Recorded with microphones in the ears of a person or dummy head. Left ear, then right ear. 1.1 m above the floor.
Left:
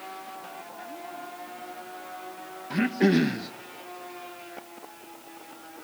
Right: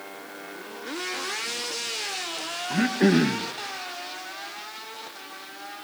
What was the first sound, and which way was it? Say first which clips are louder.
Throat clearing: right 2 dB; centre (ahead or behind).